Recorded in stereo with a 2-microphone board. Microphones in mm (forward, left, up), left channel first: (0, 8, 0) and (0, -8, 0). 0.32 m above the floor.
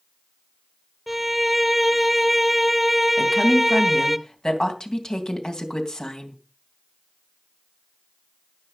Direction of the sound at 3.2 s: 60° left (ahead or behind).